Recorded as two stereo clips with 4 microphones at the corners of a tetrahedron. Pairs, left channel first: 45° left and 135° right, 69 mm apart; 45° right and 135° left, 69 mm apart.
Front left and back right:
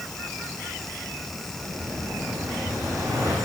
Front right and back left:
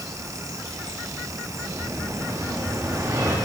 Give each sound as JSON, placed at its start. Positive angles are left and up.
{"t": 1.6, "sound": "an explosion", "azimuth_deg": -170, "distance_m": 8.5}